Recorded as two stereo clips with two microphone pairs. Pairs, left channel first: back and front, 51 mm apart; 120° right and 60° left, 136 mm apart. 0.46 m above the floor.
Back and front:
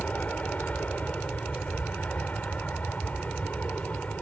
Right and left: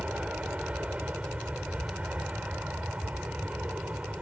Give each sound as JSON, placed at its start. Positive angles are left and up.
{"t": 0.0, "sound": "an aircraft", "azimuth_deg": 135}